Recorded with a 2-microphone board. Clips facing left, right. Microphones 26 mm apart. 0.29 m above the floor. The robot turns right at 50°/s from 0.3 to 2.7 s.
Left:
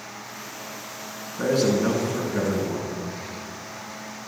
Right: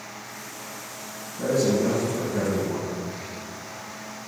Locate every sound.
1.4 s a man speaking: 105° left, 3.5 m; by 3.0 s 170° left, 3.5 m